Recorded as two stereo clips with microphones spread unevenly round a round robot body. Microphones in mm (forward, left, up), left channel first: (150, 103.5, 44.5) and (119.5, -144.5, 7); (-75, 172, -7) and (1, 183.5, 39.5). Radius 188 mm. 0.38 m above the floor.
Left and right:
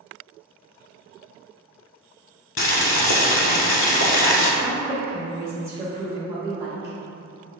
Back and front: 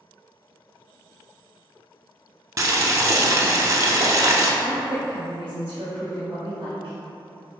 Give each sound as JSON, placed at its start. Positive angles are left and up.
{"t": 2.6, "sound": "boiling", "azimuth_deg": 50, "distance_m": 0.8}
{"t": 4.6, "sound": "a woman speaking", "azimuth_deg": -40, "distance_m": 1.1}